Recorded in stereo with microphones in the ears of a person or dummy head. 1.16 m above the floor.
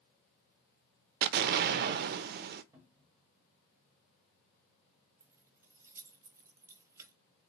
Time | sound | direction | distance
1.2 | an explosion | 60° right (ahead or behind) | 0.5 m
2.7 | a cupboard door | 10° right (ahead or behind) | 1.4 m
5.2 | keys jangling | 15° right (ahead or behind) | 0.7 m